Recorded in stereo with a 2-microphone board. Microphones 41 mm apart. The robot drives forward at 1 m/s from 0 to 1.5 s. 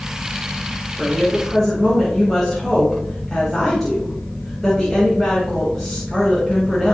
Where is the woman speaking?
5° left (ahead or behind), 3.5 m.